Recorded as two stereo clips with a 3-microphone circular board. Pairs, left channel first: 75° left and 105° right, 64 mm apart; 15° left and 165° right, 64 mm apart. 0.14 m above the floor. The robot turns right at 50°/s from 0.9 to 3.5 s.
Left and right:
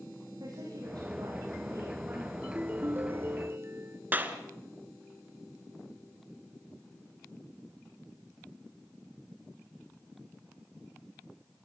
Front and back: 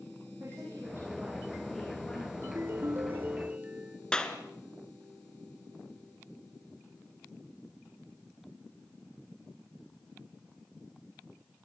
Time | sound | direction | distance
0.4 | a woman speaking | 105° right | 9 m
2.4 | a ringtone | 170° right | 0.5 m
4.1 | a clap | 55° right | 1.8 m